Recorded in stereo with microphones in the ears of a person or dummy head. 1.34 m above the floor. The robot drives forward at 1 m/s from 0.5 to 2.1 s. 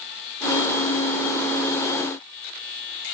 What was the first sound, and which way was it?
Only background noise.